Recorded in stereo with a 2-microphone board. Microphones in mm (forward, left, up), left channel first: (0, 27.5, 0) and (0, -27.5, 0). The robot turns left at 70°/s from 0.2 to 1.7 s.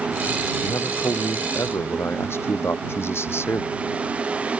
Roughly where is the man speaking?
Behind left.